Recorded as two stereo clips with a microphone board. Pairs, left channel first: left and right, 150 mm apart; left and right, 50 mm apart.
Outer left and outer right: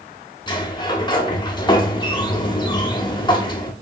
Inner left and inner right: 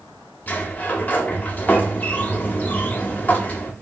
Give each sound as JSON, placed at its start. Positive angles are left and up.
{"t": 0.5, "sound": "a sliding door", "side_deg": 30, "distance_m": 0.6}